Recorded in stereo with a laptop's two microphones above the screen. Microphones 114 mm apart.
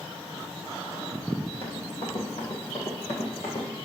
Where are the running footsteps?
65° left (ahead or behind), 2.5 m; by 3.7 s 60° left (ahead or behind), 2 m.